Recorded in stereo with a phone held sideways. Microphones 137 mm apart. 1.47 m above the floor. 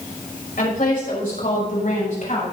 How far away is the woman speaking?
About 6 m.